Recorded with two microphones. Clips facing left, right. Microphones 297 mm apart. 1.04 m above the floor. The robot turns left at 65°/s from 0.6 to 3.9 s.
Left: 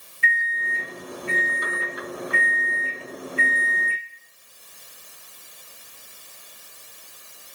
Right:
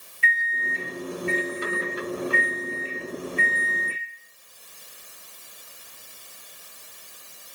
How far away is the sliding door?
No sliding door in this recording.